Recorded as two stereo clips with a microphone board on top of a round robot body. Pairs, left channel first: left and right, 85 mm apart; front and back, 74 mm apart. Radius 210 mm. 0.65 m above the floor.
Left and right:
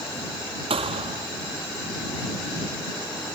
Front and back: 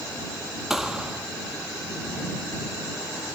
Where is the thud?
95° right.